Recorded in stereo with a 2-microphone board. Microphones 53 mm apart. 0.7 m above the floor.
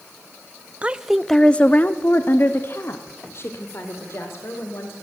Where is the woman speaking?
25° right (ahead or behind), 0.6 m; by 4.9 s 55° left (ahead or behind), 2.5 m.